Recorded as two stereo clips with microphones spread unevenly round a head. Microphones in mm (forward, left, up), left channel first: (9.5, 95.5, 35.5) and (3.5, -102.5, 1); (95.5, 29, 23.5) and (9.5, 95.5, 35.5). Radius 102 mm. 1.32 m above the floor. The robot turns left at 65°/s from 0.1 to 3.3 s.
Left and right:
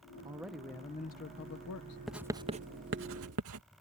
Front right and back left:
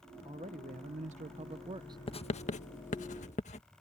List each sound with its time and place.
0.2 s a man speaking: 160° right; by 2.0 s 85° left
2.1 s writing: straight ahead; by 3.6 s 80° right